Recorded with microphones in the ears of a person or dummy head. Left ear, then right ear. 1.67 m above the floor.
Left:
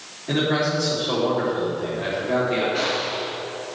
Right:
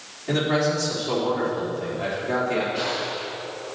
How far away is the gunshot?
About 4 m.